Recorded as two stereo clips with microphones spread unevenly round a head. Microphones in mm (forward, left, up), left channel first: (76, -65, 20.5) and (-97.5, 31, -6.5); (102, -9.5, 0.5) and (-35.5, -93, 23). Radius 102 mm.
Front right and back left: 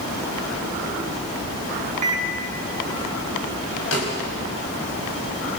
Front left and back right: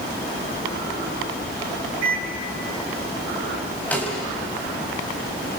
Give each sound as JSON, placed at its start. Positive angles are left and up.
{"t": 2.0, "sound": "a microwave", "azimuth_deg": -155, "distance_m": 5.5}
{"t": 3.9, "sound": "a snare drum", "azimuth_deg": -50, "distance_m": 6.0}